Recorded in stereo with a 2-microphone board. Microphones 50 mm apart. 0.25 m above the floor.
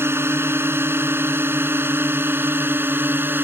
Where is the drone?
50° right (ahead or behind); by 3.4 s 45° right (ahead or behind).